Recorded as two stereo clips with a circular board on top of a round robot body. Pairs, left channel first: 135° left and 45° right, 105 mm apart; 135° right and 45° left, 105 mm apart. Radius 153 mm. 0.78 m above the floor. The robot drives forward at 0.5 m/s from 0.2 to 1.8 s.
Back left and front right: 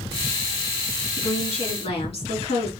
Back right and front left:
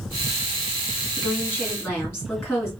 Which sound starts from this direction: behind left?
A woman speaking, at 1.2 s.